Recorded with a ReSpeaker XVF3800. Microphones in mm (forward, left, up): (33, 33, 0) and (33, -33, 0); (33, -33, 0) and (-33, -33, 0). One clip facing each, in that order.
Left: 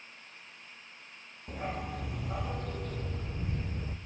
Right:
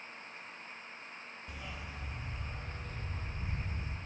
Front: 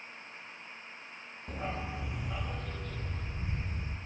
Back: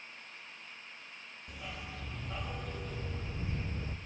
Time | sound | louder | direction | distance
1.5 | a dog barking | left 11 dB, front 8 dB | 40° left | 0.8 m